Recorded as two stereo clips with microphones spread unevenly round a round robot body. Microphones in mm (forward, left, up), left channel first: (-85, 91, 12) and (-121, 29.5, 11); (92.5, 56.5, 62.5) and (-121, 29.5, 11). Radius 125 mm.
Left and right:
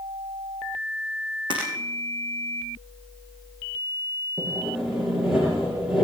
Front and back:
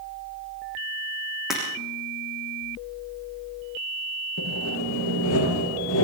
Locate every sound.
1.5 s breaking glass: 85° right, 6.5 m
4.4 s sawing: 30° right, 6.5 m